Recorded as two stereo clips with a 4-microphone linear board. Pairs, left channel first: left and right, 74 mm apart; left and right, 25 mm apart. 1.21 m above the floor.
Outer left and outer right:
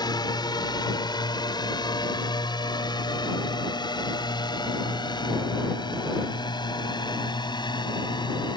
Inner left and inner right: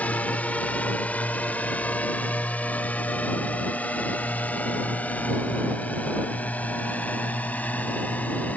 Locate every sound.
0.0 s a drone: 70° left (ahead or behind); by 8.6 s 80° left